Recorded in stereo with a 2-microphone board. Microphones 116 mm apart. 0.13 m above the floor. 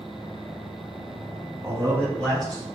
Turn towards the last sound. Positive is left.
turn(degrees=0)  # may be behind; listen again after turning